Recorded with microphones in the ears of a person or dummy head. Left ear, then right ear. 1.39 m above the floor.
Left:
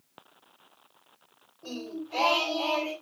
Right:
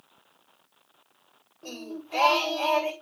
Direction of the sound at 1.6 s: 30° right (ahead or behind).